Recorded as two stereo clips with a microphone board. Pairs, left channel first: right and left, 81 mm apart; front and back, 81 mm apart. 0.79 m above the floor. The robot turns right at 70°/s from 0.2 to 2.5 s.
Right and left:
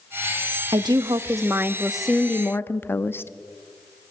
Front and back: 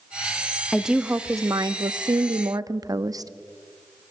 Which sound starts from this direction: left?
A woman speaking, at 0.7 s.